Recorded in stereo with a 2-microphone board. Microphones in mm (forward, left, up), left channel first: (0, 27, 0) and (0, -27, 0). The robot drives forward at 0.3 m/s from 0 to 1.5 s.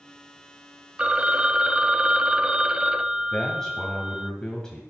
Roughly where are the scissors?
I don't hear scissors.